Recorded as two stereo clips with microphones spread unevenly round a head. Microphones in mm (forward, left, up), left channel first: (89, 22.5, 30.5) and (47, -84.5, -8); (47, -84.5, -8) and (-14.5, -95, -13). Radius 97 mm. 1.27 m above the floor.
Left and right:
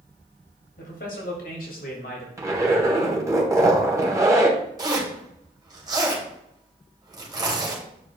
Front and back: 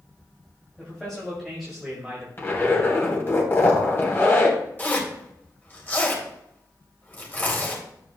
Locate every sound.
0.8 s a man speaking: 95° left, 2.5 m; by 2.3 s 110° left, 2 m
2.4 s a zipper: 40° right, 2.5 m
4.8 s a zipper: 50° right, 3 m